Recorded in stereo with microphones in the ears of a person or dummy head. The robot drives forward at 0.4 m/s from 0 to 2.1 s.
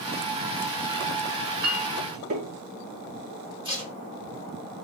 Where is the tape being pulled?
20° right (ahead or behind), 1.8 m.